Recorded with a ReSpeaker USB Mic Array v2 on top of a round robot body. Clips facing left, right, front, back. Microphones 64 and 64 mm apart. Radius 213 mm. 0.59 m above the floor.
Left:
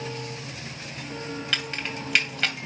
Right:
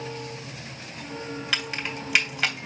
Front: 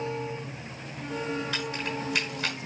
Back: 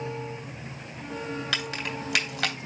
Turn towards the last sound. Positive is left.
turn(degrees=-175)